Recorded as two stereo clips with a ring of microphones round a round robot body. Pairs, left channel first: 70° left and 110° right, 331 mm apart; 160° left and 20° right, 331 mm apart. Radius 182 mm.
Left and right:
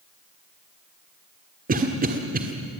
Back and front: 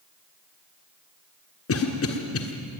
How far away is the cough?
About 1.5 m.